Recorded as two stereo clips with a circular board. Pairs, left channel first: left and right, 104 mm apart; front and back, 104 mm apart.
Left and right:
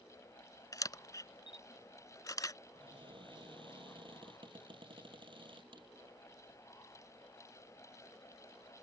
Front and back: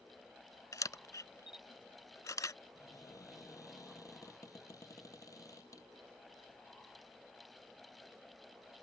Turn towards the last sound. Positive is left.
turn(degrees=-55)